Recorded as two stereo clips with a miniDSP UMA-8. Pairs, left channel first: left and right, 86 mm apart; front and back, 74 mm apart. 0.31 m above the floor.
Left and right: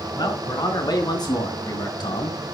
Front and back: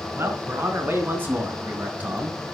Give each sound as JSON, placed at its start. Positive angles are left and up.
{"t": 0.2, "sound": "a man speaking", "azimuth_deg": 125, "distance_m": 4.0}